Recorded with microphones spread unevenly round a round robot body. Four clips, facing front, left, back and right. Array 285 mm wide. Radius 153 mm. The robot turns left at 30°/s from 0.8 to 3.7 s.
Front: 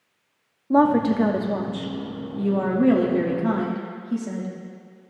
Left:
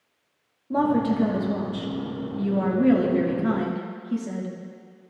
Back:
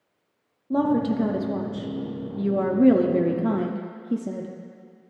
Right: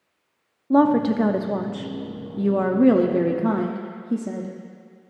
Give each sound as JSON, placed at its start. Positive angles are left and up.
{"t": 0.7, "sound": "a woman speaking", "azimuth_deg": -40, "distance_m": 0.7}